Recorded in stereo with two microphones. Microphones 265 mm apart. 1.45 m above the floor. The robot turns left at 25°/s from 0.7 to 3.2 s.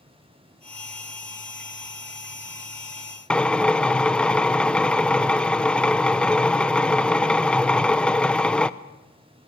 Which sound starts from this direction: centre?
A drill, at 3.3 s.